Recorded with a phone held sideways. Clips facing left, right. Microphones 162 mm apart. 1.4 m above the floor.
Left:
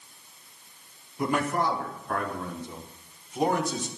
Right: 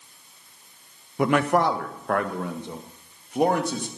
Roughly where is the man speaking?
Right.